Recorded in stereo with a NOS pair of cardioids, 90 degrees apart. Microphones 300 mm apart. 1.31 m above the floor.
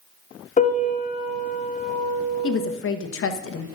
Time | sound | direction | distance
0.6 | a piano | 25° left | 2.5 m
2.4 | a woman speaking | 50° left | 1.2 m